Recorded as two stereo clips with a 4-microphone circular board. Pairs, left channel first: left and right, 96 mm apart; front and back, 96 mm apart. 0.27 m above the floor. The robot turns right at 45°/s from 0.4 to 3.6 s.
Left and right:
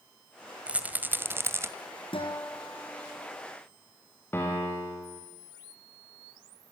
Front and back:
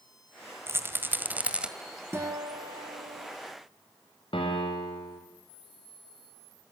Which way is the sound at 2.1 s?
115° left.